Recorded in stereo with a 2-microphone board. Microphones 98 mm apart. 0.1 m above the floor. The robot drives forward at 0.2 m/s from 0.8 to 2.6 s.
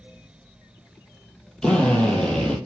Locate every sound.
1.6 s a drill: 10° left (ahead or behind), 1.3 m